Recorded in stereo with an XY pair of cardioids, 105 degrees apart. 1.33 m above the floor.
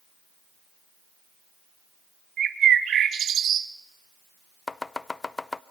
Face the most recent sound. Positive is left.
turn(degrees=20)